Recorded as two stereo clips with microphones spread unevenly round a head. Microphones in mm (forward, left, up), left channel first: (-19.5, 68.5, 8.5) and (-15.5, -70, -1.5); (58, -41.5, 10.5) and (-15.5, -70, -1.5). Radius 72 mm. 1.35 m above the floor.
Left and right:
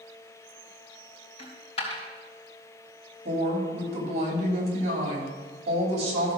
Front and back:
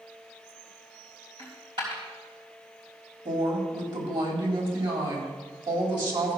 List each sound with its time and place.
1.4 s a dropped coin: 140° left, 3.5 m
3.2 s a woman speaking: 135° right, 3.5 m